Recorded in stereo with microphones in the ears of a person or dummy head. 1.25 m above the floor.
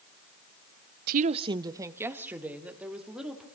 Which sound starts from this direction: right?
A woman speaking, at 1.1 s.